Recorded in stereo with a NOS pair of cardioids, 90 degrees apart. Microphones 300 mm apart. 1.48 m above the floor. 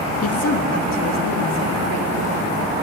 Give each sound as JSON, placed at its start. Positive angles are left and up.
{"t": 0.2, "sound": "a woman speaking", "azimuth_deg": 55, "distance_m": 3.0}